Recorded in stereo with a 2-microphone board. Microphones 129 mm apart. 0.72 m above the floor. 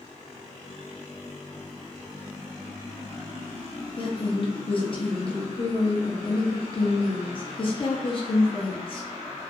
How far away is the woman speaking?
About 0.6 m.